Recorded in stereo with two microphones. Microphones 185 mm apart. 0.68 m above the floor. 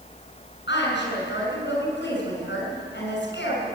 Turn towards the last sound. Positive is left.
turn(degrees=75)  # may be behind; listen again after turning